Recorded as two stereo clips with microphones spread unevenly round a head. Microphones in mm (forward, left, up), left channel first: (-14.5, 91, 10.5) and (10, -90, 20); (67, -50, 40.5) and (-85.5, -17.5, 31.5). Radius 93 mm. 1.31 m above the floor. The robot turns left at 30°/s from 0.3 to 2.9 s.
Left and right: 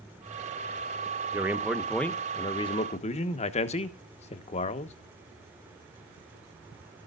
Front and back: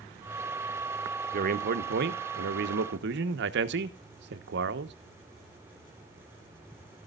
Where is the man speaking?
160° right, 1.2 m; by 4.9 s 155° left, 1.2 m.